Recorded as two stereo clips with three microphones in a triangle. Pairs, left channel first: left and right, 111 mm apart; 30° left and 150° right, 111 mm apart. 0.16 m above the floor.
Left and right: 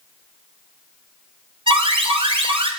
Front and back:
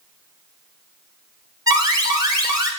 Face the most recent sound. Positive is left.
turn(degrees=-100)